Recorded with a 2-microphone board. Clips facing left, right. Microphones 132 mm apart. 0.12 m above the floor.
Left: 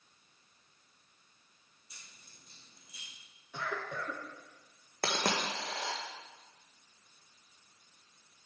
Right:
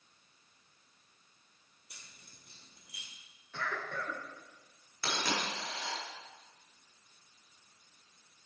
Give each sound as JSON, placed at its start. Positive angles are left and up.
{"t": 1.9, "sound": "keys jangling", "side_deg": -65, "distance_m": 2.5}
{"t": 3.5, "sound": "a cough", "side_deg": 15, "distance_m": 1.2}
{"t": 5.0, "sound": "a dropped coin", "side_deg": 55, "distance_m": 1.7}